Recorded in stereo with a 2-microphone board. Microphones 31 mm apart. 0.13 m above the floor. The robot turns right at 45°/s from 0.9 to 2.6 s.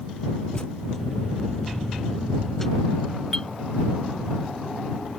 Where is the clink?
20° left (ahead or behind).